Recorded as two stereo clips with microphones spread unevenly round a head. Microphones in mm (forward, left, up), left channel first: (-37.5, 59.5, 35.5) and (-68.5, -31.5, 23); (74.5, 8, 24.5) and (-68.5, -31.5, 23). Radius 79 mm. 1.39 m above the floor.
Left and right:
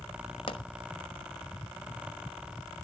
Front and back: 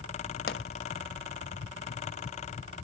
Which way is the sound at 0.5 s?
35° left.